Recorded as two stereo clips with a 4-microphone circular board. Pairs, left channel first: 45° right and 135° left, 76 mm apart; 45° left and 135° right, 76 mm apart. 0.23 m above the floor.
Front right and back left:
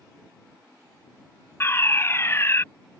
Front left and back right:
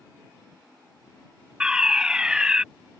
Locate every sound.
1.6 s a fire alarm: 65° right